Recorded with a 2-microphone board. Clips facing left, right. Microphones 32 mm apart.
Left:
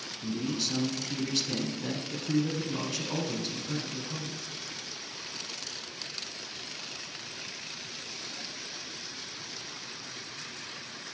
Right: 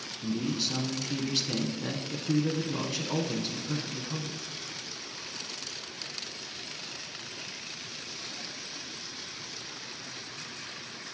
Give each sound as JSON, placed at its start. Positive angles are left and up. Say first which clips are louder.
{"t": 0.2, "sound": "a man speaking", "louder": "right 1 dB", "side_deg": -10, "distance_m": 1.1}